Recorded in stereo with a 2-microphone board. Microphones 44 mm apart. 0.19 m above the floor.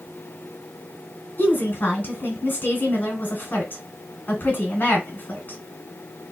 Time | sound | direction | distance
1.4 | a woman speaking | 40° left (ahead or behind) | 1.5 m